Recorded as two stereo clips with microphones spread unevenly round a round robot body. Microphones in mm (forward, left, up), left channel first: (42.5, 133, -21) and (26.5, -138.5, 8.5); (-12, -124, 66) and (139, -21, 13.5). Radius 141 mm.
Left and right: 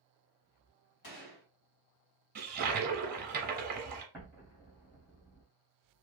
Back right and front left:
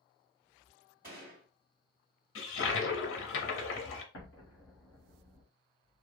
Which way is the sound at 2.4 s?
155° right.